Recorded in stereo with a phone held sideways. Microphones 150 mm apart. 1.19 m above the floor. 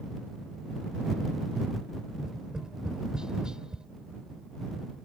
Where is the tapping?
5° right (ahead or behind).